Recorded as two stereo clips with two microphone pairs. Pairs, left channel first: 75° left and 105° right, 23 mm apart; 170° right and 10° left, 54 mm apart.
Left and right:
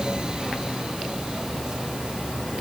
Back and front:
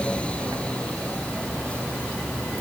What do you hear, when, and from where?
Only background noise.